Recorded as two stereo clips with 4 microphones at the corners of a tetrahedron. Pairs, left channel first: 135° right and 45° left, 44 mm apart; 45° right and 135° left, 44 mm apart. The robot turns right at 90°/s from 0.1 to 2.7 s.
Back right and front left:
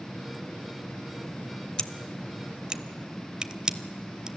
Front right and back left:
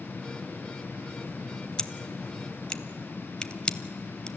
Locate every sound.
1.8 s scissors: 90° right, 0.7 m; by 4.3 s 10° right, 0.7 m